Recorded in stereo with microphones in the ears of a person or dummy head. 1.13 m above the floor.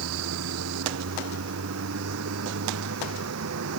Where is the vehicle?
75° right (ahead or behind).